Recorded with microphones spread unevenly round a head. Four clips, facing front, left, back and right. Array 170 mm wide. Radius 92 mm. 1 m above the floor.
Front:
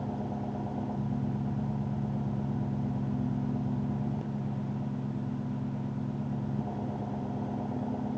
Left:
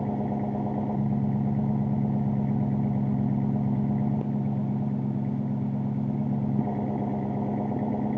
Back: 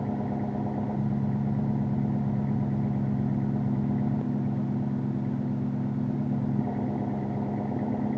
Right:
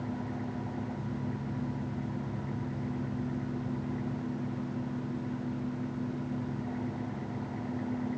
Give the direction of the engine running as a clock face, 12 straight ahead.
8 o'clock.